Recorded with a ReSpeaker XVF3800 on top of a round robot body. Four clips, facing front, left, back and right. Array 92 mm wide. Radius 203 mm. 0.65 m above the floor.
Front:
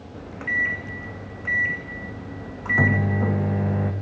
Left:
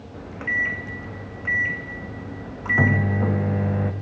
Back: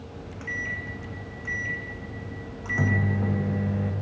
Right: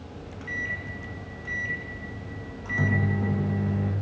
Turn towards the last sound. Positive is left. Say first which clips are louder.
# left 9 dB, front 8 dB
turn(degrees=50)